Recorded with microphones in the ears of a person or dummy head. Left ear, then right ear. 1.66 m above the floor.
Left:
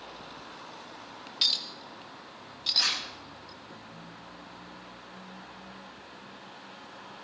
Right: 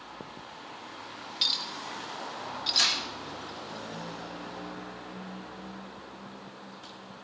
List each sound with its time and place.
1.4 s a clink: 5° left (ahead or behind), 1.3 m
2.7 s tearing paper: 80° right, 9.5 m